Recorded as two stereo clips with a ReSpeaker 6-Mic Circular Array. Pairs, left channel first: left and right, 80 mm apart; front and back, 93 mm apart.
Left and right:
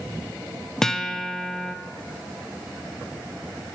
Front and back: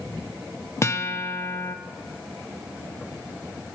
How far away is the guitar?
About 0.5 m.